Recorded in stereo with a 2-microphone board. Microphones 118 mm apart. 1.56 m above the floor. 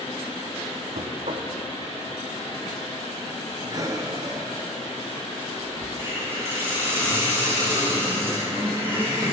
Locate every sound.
0.9 s knocking: 65° right (ahead or behind), 0.9 m
3.7 s breathing: 30° right (ahead or behind), 0.9 m
6.0 s a hiss: 20° right (ahead or behind), 3 m